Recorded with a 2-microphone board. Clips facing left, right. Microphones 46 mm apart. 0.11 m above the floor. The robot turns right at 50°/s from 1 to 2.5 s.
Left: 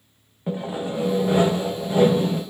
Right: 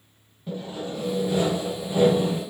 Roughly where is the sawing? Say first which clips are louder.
Left 5 dB; behind left.